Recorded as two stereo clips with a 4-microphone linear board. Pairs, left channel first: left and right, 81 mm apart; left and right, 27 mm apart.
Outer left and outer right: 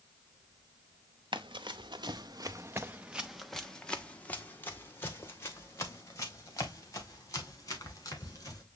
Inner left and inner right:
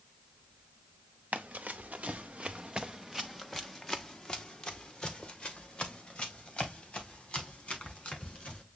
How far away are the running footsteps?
About 1.2 m.